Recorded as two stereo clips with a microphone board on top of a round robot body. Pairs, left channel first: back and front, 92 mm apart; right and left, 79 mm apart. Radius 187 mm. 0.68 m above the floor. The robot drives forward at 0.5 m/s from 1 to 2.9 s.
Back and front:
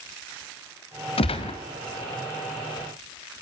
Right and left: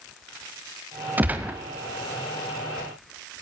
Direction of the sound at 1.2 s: 160° left.